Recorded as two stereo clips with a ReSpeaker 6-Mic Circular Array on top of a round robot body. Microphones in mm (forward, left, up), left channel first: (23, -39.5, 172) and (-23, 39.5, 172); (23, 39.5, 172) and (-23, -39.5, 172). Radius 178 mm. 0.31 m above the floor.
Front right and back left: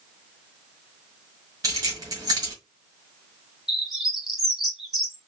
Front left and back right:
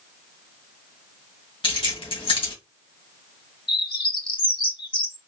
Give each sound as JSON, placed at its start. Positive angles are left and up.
{"t": 1.6, "sound": "keys jangling", "azimuth_deg": 75, "distance_m": 1.8}
{"t": 3.7, "sound": "a bird", "azimuth_deg": 35, "distance_m": 2.5}